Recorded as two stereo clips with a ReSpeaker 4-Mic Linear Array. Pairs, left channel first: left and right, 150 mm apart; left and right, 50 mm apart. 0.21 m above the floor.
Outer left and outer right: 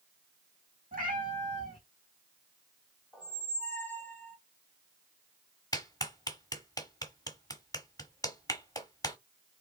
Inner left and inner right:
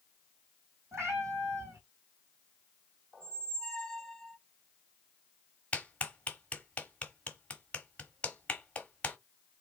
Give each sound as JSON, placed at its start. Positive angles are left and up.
{"t": 0.9, "sound": "a cat meowing", "side_deg": -65, "distance_m": 3.0}
{"t": 3.1, "sound": "a squeak", "side_deg": 10, "distance_m": 1.3}
{"t": 5.7, "sound": "a clap", "side_deg": 25, "distance_m": 1.3}